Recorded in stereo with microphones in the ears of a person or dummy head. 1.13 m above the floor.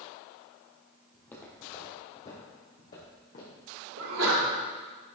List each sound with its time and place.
1.1 s footsteps: centre (ahead or behind), 2.0 m; by 3.7 s 40° left (ahead or behind), 4 m
4.0 s a sneeze: 75° right (ahead or behind), 3 m